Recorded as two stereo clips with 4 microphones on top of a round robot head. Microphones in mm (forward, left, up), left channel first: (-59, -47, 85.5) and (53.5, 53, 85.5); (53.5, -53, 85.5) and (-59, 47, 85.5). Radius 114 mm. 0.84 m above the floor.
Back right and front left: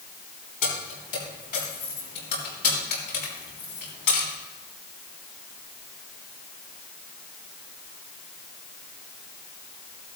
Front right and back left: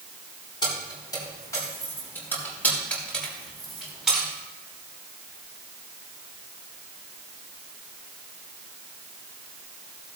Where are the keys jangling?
105° right, 5 m; by 4.3 s 135° right, 5 m.